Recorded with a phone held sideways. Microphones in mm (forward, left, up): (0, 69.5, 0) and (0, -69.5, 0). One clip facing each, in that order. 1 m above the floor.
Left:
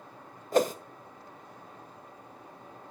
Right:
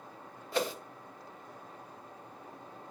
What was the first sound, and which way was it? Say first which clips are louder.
A whoosh: left 8 dB; 40° left (ahead or behind).